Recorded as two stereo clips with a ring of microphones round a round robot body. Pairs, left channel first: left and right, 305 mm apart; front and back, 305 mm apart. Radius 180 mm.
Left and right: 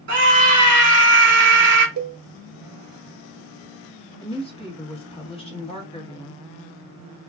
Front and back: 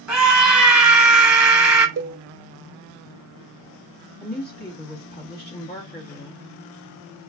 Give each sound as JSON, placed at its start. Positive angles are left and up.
{"t": 0.1, "sound": "a scream", "azimuth_deg": -95, "distance_m": 1.2}
{"t": 2.0, "sound": "a cowbell", "azimuth_deg": -130, "distance_m": 0.6}
{"t": 4.2, "sound": "a woman speaking", "azimuth_deg": 30, "distance_m": 1.4}